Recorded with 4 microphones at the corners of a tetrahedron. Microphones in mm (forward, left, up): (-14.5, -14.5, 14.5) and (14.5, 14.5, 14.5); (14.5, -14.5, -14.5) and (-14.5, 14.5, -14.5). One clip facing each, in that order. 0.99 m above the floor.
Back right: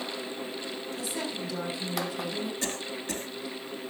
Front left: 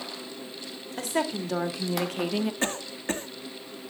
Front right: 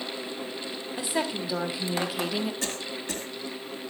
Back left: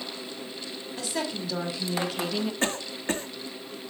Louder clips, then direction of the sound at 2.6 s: Front left 4 dB, back left 4 dB; 90° left.